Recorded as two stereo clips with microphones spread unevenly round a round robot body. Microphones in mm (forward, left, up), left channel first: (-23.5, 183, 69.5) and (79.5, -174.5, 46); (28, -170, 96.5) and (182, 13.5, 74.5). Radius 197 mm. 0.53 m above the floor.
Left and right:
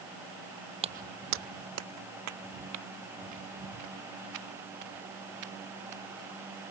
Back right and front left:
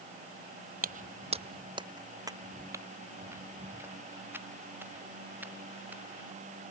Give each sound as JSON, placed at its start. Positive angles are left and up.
{"t": 0.8, "sound": "footsteps", "azimuth_deg": 0}